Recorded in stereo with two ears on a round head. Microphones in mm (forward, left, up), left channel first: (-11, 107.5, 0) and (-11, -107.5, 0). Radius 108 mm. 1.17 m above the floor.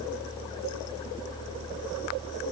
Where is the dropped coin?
No dropped coin in this recording.